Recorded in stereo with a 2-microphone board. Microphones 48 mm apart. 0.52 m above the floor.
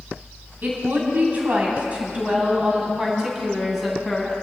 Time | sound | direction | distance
0.6 | a woman speaking | 45° right (ahead or behind) | 4.5 m